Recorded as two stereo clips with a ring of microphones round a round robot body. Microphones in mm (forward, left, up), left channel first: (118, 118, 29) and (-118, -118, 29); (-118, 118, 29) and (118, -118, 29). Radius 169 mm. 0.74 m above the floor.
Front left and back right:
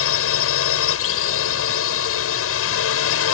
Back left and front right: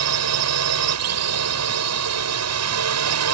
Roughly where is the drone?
Ahead.